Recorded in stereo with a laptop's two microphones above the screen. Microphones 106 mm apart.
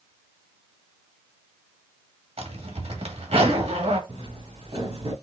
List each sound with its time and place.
2.4 s a zipper: 75° right (ahead or behind), 1.9 m
4.1 s footsteps: 70° right (ahead or behind), 4 m